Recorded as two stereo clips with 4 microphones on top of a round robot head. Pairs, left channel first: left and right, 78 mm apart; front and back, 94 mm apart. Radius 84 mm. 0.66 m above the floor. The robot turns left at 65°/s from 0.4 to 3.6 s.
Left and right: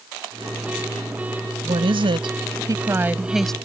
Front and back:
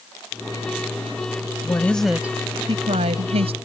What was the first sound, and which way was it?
A woman speaking, 65° right.